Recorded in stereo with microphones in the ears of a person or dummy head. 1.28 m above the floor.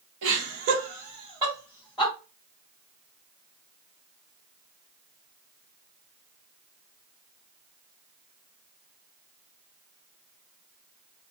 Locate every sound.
0.2 s laughter: 65° right (ahead or behind), 1.2 m; by 2.1 s 5° left (ahead or behind), 1.1 m